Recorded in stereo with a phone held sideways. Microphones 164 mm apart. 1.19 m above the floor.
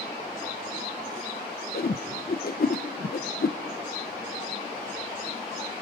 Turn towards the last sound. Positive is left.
turn(degrees=65)  # may be behind; listen again after turning